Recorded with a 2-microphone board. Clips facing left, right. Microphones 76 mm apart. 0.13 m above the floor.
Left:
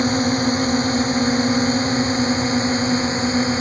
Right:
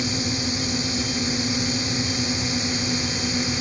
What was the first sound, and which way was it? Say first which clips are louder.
A drone: left 9 dB; 45° left (ahead or behind).